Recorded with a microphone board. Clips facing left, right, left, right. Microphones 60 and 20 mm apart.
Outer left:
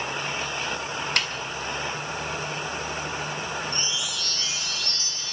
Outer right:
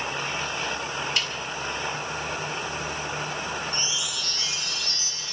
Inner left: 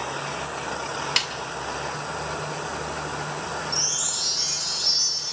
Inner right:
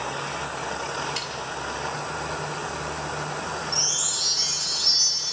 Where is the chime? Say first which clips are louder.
Even, inner right 2 dB; centre (ahead or behind), 2.5 m.